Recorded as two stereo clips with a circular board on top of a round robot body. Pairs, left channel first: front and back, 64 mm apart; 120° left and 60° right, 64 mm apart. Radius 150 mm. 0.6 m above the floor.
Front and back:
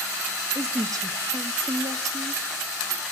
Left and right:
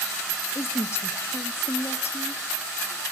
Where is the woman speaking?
160° left, 1.5 m.